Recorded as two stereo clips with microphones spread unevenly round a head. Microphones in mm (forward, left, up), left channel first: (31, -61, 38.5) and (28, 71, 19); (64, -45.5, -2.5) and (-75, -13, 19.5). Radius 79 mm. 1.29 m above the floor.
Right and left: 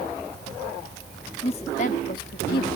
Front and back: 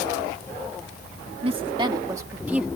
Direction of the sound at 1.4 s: 145° right.